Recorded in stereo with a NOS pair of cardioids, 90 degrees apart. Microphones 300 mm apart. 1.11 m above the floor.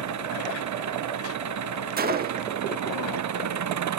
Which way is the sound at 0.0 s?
60° right.